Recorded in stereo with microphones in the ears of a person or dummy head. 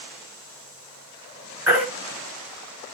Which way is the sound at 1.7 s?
10° right (ahead or behind).